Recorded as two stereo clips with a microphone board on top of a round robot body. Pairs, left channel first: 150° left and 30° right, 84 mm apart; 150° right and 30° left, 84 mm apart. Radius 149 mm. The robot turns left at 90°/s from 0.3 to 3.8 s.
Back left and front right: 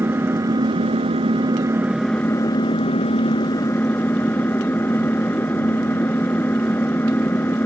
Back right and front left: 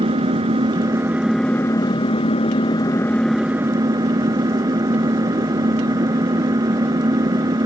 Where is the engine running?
35° left; by 7.7 s 80° left.